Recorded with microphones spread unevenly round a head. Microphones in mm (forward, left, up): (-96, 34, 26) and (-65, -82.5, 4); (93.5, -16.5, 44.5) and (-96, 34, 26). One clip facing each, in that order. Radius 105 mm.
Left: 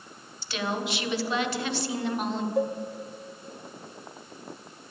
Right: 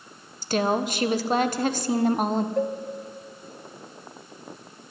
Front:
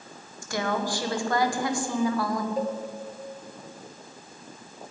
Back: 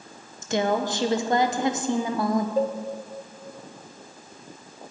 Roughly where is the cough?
No cough in this recording.